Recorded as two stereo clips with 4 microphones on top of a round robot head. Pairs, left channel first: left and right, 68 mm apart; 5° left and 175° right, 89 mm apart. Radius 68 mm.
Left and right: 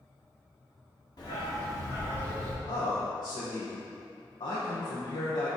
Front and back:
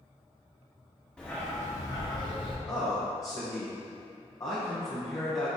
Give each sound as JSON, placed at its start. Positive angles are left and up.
{"t": 1.2, "sound": "a dog barking", "azimuth_deg": 80, "distance_m": 1.8}
{"t": 2.6, "sound": "a man speaking", "azimuth_deg": 60, "distance_m": 1.5}